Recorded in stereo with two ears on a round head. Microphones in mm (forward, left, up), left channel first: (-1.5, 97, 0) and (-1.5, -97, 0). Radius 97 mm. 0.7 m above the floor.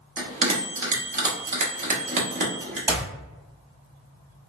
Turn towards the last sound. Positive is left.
turn(degrees=-15)  # may be behind; listen again after turning